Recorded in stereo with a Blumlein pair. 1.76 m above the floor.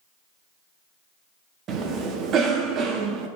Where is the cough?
30° right, 0.5 m.